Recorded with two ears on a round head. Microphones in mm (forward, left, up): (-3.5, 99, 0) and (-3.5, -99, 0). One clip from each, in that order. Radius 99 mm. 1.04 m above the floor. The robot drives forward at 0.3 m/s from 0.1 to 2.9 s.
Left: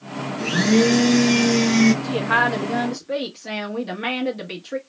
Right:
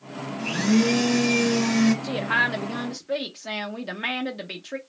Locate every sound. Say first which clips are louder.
0.4 s a blender: left 5 dB; 10° left (ahead or behind), 1.7 m; by 1.9 s 5° left (ahead or behind), 2 m
2.0 s a woman speaking: left 4 dB; 20° right (ahead or behind), 0.6 m; by 4.8 s 10° right (ahead or behind), 0.8 m